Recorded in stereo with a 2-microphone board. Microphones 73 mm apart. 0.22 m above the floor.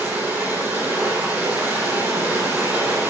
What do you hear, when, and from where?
0.0 s running water: 25° right (ahead or behind), 7.5 m